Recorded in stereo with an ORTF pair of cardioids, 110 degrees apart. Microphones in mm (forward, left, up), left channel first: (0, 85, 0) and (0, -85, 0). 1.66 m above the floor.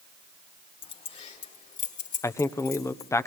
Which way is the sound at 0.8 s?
35° left.